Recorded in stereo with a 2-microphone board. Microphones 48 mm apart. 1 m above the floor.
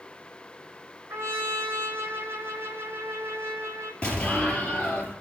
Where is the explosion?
25° left (ahead or behind), 4 m.